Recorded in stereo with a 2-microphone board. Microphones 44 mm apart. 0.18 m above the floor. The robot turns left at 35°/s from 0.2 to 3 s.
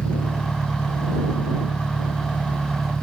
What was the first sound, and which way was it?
An engine running, 125° left.